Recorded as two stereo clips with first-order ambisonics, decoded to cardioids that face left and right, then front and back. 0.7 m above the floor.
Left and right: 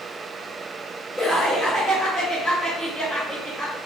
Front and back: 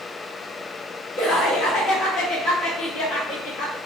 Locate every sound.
1.2 s laughter: 5° left, 0.8 m